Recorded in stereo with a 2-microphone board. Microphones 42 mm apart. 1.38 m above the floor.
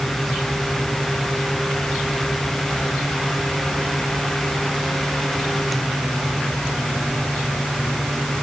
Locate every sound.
Only background noise.